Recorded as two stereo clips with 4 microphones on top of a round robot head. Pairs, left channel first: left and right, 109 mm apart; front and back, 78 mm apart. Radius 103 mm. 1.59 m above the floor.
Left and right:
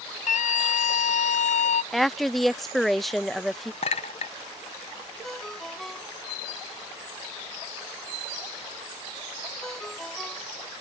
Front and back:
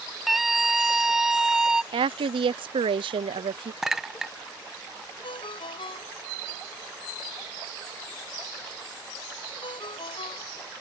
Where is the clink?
95° left.